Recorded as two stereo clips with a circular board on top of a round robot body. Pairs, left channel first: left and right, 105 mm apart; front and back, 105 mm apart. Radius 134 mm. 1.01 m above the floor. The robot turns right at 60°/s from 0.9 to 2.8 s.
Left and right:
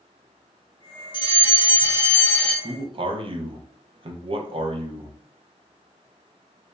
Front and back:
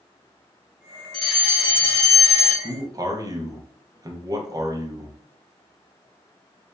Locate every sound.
1.1 s a fire alarm: 80° left, 1.6 m; by 2.5 s 165° left, 1.6 m
2.6 s a man speaking: 135° right, 0.8 m; by 5.1 s 125° right, 0.8 m